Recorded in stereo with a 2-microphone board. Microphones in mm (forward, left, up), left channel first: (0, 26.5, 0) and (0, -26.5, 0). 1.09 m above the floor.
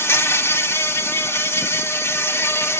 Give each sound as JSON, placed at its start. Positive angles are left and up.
{"t": 0.0, "sound": "an insect", "side_deg": 50, "distance_m": 1.3}